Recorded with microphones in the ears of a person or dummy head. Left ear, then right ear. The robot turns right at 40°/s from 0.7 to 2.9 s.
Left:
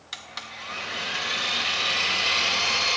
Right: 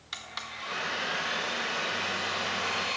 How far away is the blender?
About 0.6 m.